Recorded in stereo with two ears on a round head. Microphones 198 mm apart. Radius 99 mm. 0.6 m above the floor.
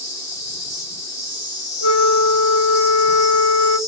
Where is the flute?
55° left (ahead or behind), 0.6 m.